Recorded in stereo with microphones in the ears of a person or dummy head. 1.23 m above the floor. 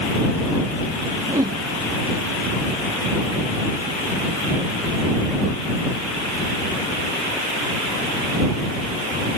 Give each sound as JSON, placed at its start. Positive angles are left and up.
{"t": 1.3, "sound": "a whoosh", "side_deg": -15}